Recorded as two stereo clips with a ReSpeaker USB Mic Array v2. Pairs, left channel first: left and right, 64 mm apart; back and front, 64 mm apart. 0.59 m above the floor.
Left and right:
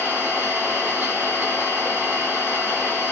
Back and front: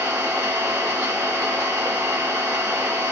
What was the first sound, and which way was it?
An engine running, 25° right.